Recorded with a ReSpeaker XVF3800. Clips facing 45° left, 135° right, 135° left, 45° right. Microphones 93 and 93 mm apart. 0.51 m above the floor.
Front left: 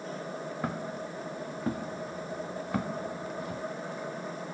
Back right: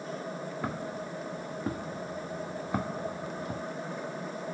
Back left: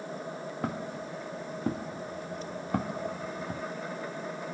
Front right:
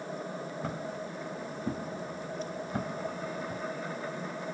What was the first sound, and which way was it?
Footsteps, 130° left.